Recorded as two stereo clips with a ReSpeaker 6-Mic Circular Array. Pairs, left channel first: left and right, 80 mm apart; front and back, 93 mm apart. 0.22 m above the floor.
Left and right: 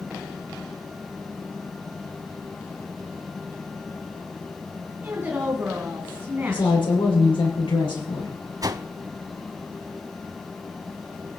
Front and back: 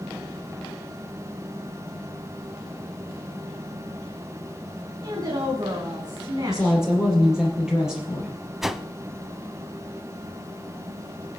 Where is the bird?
No bird in this recording.